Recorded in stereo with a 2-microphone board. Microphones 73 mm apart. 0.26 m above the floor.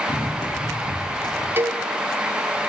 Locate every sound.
0.1 s running footsteps: 80° left, 6 m; by 1.5 s 70° left (ahead or behind), 7 m
1.6 s a cowbell: 30° right (ahead or behind), 1.7 m